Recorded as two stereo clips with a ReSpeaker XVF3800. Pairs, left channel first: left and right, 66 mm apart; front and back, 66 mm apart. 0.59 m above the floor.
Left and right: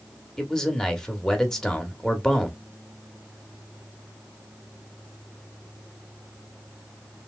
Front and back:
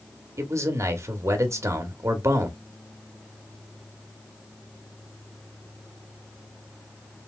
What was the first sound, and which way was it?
A man speaking, 165° left.